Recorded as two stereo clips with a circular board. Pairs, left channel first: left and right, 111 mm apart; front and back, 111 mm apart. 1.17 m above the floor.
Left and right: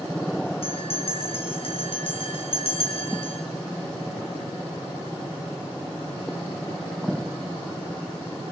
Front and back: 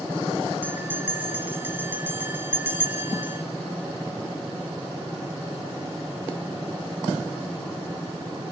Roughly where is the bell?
Left.